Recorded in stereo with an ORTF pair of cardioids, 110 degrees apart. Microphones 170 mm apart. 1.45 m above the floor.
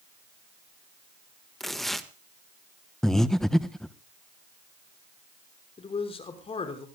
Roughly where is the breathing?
Ahead.